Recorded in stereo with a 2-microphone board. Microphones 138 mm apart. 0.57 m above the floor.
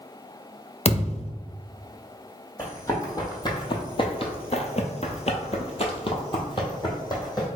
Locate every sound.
0.8 s a thud: 50° left (ahead or behind), 0.6 m
2.6 s running footsteps: 20° left (ahead or behind), 1.5 m; by 7.5 s 30° left (ahead or behind), 1.6 m